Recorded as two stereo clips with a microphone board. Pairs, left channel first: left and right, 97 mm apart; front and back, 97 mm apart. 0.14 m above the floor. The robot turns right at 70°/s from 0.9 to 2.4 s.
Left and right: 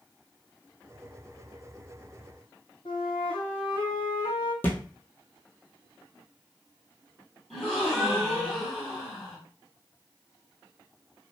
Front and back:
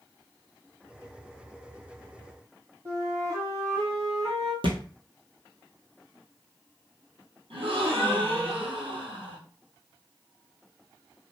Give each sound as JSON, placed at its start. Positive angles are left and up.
{"t": 2.9, "sound": "a flute", "azimuth_deg": 120, "distance_m": 1.3}
{"t": 4.6, "sound": "a thud", "azimuth_deg": 160, "distance_m": 0.9}
{"t": 7.5, "sound": "a gasp", "azimuth_deg": 175, "distance_m": 1.6}